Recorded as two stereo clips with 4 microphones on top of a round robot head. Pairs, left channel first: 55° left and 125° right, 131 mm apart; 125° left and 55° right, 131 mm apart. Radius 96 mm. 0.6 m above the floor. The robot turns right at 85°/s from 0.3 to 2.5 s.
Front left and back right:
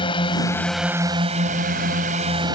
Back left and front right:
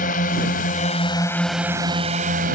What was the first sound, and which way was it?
A drone, 110° left.